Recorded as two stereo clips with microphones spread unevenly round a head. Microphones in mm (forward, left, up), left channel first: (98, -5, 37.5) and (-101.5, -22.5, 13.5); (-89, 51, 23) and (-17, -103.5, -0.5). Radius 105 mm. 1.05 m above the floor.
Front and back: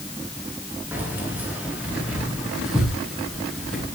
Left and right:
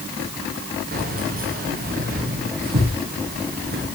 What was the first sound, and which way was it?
Keys jangling, 95° right.